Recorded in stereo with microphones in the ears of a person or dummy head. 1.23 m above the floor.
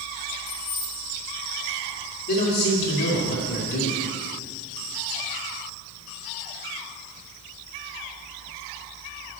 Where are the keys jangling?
30° left (ahead or behind), 1.4 m.